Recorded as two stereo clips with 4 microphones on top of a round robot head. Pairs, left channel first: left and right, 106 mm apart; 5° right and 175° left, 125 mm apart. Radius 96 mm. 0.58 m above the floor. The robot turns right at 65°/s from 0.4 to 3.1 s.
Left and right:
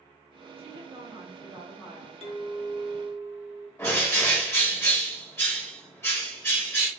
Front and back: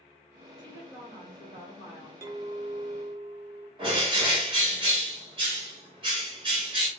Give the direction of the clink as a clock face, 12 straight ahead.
8 o'clock.